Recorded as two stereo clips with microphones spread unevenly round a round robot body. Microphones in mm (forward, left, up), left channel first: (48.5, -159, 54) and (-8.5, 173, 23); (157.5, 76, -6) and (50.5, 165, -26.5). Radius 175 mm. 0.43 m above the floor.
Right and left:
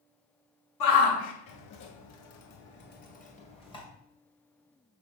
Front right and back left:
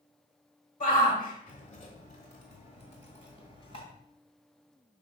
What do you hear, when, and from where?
0.8 s a shout: 80° right, 1.6 m; by 3.8 s 160° right, 1.9 m